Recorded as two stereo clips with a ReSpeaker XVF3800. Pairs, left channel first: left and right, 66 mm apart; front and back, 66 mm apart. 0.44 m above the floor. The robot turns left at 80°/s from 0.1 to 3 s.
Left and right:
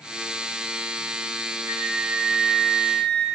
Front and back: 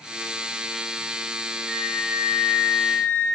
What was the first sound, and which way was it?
A flute, 90° right.